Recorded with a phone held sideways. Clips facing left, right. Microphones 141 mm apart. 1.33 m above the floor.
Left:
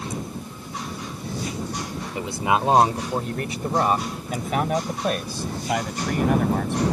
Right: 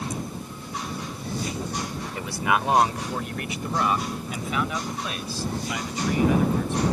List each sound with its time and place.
2.1 s a man speaking: 20° left (ahead or behind); by 6.8 s 60° left (ahead or behind)